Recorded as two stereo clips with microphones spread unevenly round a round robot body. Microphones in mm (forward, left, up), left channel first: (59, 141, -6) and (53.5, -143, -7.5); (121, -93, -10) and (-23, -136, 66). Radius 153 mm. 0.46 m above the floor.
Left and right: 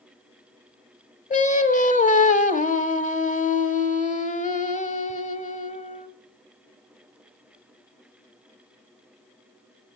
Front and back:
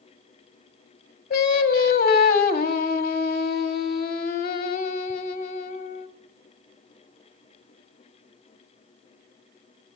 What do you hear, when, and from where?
1.3 s singing: 25° left, 1.1 m